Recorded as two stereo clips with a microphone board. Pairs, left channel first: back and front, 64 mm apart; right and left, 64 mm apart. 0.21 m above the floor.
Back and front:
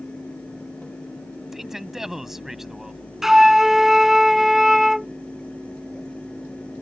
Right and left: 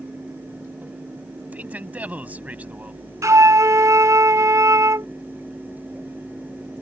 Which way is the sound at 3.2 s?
80° left.